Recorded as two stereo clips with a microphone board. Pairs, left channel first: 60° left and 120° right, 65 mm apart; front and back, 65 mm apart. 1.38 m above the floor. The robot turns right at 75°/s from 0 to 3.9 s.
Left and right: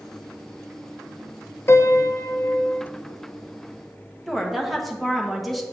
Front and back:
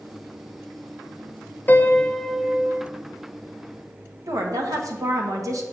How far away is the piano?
About 0.5 m.